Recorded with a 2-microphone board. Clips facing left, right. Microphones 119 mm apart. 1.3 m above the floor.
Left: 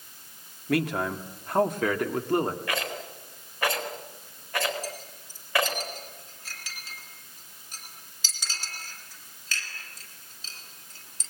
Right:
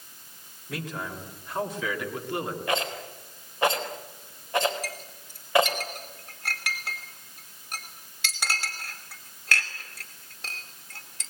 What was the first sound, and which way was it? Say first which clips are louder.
A man speaking: left 9 dB; 70° left (ahead or behind).